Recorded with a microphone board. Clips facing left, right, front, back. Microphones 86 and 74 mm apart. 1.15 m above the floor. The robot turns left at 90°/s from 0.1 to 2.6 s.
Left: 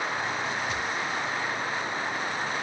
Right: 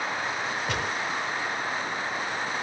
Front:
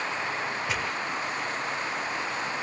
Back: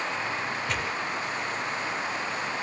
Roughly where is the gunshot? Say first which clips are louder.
Right 1 dB, even; right.